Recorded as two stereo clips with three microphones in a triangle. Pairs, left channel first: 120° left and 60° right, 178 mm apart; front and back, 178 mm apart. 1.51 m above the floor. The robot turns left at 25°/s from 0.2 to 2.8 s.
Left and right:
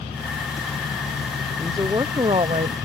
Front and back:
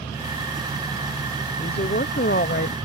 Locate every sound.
1.6 s a woman speaking: 15° left; by 2.8 s 10° right